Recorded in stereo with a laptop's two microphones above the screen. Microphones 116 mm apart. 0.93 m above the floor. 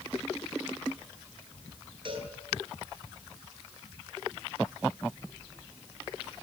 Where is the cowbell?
45° right (ahead or behind), 9 m.